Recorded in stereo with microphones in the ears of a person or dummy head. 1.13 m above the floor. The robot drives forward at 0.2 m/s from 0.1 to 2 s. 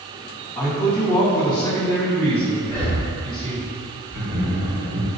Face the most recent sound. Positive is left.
turn(degrees=-45)  # may be behind; listen again after turning